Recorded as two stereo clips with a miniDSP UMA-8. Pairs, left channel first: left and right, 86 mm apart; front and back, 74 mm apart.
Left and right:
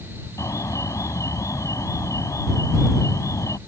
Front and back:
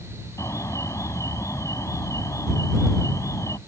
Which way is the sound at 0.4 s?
40° left.